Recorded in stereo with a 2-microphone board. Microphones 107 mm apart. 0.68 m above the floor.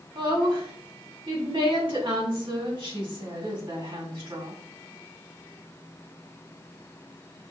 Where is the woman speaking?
55° right (ahead or behind), 2 m.